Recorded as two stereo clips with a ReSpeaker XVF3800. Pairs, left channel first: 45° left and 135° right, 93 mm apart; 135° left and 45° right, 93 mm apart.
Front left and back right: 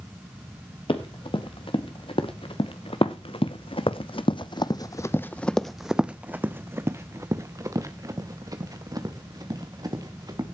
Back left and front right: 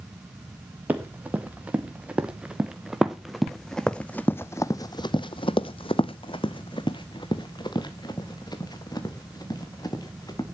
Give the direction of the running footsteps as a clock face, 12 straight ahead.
11 o'clock.